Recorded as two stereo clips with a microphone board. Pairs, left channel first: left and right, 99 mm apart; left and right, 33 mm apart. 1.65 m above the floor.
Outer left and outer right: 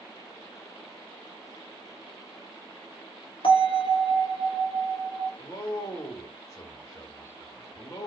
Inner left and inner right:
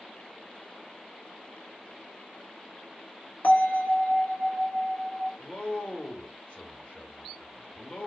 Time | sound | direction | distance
3.4 | a bell | 60° left (ahead or behind) | 1.8 m
5.4 | a man speaking | 35° left (ahead or behind) | 1.6 m